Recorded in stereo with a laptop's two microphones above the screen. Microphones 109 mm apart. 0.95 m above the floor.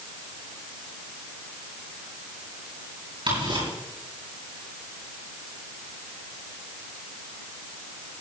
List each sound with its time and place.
3.3 s ticking: 55° right (ahead or behind), 7.5 m